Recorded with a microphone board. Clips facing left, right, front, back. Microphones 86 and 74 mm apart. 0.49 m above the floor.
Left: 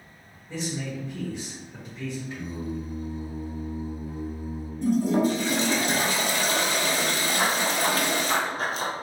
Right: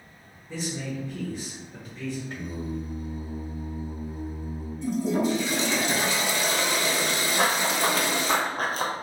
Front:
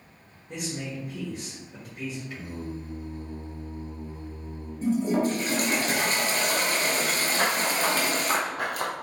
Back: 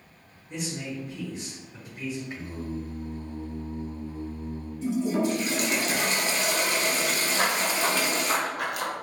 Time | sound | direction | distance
0.5 | a man speaking | 5° right | 1.6 m
2.3 | singing | 120° right | 1.0 m
4.8 | a toilet flushing | 50° left | 0.9 m
7.4 | running footsteps | 100° right | 1.1 m